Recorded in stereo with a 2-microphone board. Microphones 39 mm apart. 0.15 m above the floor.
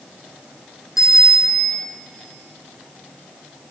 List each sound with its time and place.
1.0 s a bicycle bell: 10° right (ahead or behind), 6 m